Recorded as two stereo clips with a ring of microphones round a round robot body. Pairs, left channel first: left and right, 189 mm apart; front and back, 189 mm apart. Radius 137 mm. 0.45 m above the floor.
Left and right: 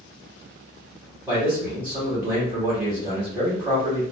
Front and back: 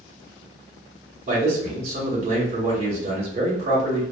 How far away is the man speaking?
About 1.1 m.